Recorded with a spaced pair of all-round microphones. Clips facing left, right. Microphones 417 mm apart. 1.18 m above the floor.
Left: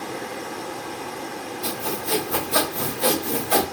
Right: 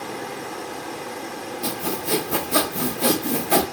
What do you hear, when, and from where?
1.6 s sawing: 40° right (ahead or behind), 0.6 m